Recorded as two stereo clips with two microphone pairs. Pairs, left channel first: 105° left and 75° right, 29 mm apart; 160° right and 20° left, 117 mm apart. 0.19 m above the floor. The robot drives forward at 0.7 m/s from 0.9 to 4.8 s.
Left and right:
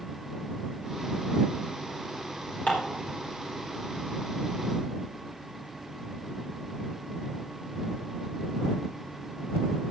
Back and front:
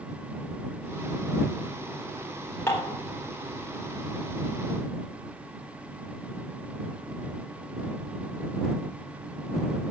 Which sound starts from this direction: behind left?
Dishes clattering, at 2.7 s.